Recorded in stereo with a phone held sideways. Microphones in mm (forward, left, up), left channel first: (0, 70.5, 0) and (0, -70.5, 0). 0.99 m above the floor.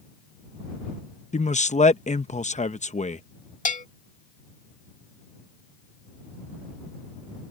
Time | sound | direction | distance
1.3 | a man speaking | 55° left (ahead or behind) | ?
3.6 | a bell | 70° left (ahead or behind) | ?